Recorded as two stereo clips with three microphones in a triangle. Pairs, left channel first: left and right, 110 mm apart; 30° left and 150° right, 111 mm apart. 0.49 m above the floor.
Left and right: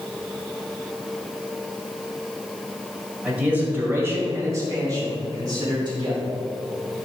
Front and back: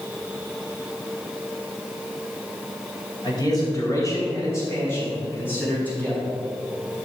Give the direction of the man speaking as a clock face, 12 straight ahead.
12 o'clock.